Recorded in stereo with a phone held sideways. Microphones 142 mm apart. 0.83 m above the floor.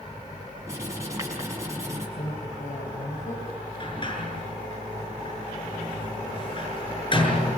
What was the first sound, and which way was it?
Writing, 20° right (ahead or behind).